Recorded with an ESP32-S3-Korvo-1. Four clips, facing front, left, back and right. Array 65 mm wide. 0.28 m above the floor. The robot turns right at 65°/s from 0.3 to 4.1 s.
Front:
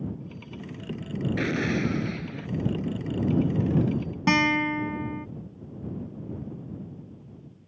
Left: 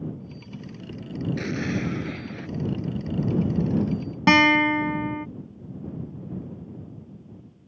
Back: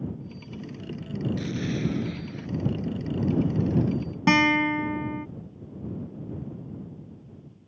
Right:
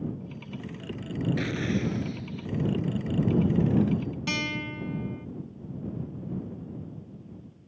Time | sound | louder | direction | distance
1.4 | an explosion | left 1 dB, front 3 dB | straight ahead | ?
4.3 | a guitar | left 19 dB, back 2 dB | 95° left | ?